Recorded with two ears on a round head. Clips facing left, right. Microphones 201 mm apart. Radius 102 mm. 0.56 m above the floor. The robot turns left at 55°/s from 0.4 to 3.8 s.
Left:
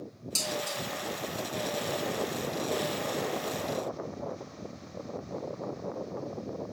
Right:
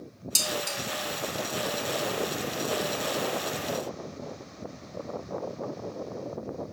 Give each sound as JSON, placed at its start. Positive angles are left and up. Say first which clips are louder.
{"t": 0.3, "sound": "dishes clattering", "louder": "right 1 dB", "side_deg": -20, "distance_m": 1.5}